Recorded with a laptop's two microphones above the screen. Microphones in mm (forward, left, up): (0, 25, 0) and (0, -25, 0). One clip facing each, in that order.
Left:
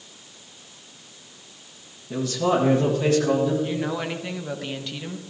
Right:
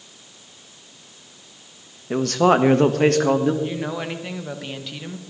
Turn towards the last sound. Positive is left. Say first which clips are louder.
# even
turn(degrees=-5)  # may be behind; listen again after turning